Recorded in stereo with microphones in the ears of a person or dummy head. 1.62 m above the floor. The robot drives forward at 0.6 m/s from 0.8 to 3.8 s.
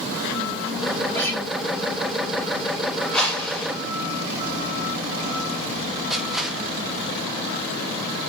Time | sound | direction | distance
1.1 | a guitar | 10° left (ahead or behind) | 4.5 m
3.1 | a whoosh | 5° left (ahead or behind) | 5 m
6.1 | crushing | centre (ahead or behind) | 1.8 m